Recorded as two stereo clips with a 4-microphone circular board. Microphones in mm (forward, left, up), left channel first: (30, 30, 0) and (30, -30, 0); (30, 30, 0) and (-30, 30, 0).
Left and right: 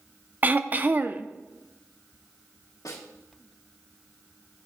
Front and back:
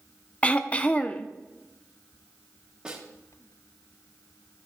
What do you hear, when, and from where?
0.4 s throat clearing: 50° right, 0.5 m
2.9 s a snare drum: 105° left, 2 m